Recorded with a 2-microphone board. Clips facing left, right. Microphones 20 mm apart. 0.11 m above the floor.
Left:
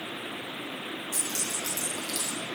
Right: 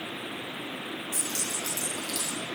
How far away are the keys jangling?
About 4 m.